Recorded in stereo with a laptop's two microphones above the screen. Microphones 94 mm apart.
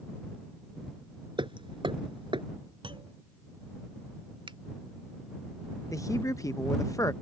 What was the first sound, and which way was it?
Hammering, 65° right (ahead or behind).